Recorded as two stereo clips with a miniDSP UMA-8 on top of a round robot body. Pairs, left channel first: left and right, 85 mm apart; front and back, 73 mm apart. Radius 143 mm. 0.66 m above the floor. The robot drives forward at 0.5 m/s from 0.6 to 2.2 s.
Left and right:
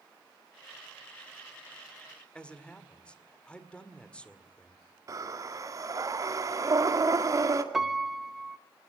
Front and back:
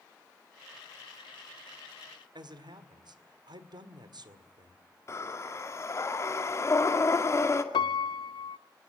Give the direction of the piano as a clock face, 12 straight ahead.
12 o'clock.